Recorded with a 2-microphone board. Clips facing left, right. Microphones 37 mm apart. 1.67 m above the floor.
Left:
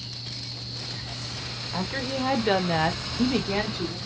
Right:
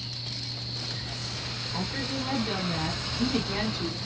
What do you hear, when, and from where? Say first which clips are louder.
1.7 s a woman speaking: left 4 dB; 30° left (ahead or behind), 0.9 m